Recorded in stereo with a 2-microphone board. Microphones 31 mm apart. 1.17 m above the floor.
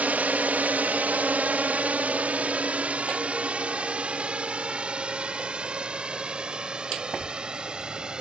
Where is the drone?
60° right (ahead or behind); by 8.2 s 30° right (ahead or behind).